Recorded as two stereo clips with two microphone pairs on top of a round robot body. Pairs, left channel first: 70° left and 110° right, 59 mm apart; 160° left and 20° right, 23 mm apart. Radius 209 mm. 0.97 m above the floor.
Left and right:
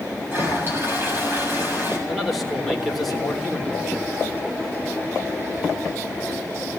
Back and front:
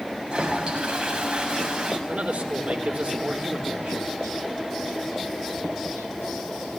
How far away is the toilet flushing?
About 7 m.